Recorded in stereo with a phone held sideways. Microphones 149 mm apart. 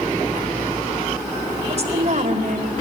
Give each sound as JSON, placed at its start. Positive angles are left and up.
{"t": 1.7, "sound": "a woman speaking", "side_deg": -45, "distance_m": 3.5}